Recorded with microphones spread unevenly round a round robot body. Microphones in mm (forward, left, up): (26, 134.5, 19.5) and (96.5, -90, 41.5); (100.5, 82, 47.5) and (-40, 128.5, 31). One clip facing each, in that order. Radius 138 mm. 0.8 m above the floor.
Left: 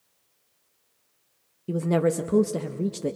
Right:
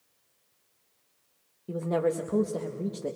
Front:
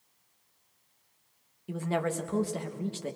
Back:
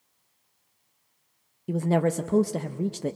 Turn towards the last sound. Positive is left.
turn(degrees=145)